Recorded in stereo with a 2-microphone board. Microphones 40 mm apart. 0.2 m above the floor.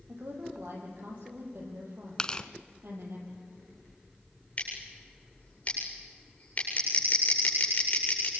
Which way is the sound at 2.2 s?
25° left (ahead or behind).